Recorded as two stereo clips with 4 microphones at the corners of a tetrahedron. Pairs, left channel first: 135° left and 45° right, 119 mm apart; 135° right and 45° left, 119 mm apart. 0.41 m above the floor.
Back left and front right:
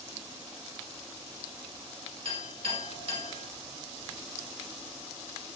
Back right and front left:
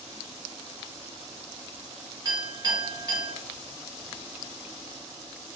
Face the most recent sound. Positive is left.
turn(degrees=-5)